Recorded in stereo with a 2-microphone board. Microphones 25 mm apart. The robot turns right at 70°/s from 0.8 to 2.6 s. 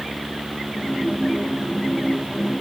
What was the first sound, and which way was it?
Only background noise.